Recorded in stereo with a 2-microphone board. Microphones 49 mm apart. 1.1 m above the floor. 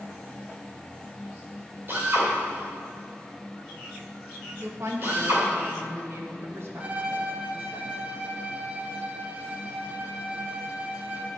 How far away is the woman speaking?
About 1.7 m.